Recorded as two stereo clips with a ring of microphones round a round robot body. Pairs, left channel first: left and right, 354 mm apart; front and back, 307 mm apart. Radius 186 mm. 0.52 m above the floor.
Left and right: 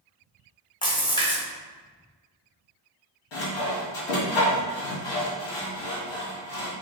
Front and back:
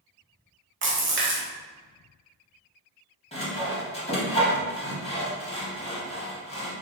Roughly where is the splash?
Behind.